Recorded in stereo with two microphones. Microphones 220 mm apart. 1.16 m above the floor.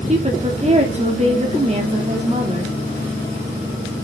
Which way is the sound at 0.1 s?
30° right (ahead or behind).